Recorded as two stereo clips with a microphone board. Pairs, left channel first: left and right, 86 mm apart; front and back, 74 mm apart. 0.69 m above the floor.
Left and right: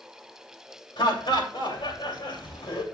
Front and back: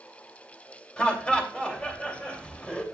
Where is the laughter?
75° left, 2.5 m.